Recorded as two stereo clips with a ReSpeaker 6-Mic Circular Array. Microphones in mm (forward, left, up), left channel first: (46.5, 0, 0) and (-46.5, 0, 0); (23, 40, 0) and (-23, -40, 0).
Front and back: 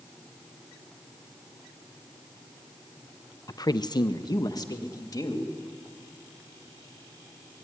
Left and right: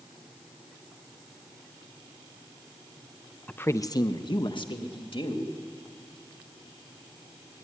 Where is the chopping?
No chopping in this recording.